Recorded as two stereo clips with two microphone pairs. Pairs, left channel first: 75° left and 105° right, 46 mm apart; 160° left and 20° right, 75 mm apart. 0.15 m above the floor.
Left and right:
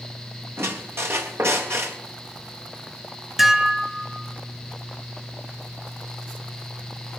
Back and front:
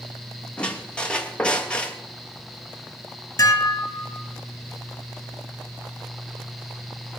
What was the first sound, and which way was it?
A squeak, 120° right.